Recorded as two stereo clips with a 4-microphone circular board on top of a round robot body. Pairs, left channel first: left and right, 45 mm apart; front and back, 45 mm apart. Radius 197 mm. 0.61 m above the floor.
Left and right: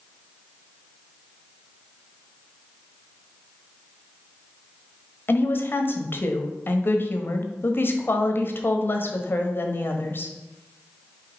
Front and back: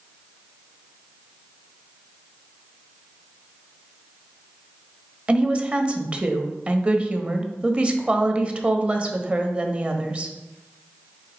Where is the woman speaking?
120° left, 1.2 m.